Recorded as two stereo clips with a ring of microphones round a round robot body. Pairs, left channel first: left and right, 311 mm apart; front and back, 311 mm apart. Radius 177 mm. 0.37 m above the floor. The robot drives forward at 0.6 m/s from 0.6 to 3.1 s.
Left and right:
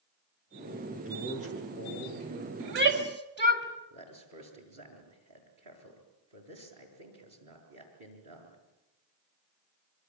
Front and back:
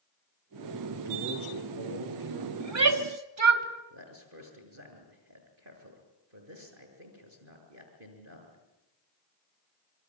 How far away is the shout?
About 2.5 m.